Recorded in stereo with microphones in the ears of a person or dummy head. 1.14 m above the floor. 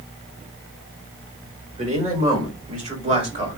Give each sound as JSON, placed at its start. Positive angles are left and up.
{"t": 1.8, "sound": "a man speaking", "side_deg": -30, "distance_m": 3.5}